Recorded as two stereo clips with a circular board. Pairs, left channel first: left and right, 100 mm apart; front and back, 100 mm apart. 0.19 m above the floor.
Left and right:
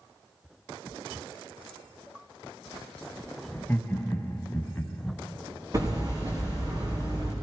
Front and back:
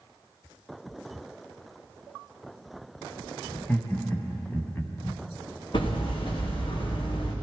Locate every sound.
3.5 s laughter: 40° left, 1.1 m
5.7 s hammering: 35° right, 3 m